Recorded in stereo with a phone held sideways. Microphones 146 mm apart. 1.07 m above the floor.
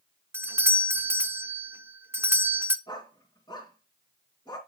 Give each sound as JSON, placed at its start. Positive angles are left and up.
{"t": 0.3, "sound": "a doorbell", "side_deg": -20, "distance_m": 0.5}
{"t": 2.9, "sound": "a dog barking", "side_deg": 30, "distance_m": 3.0}